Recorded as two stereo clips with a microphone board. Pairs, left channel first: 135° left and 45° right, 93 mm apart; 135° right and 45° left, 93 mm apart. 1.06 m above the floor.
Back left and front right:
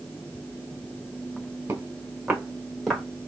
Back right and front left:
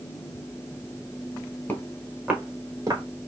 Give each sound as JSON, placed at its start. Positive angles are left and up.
{"t": 1.7, "sound": "footsteps", "azimuth_deg": -85, "distance_m": 1.2}